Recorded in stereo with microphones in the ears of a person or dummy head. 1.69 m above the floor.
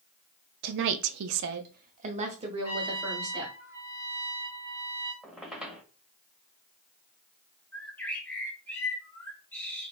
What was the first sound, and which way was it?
A woman speaking, 55° right (ahead or behind).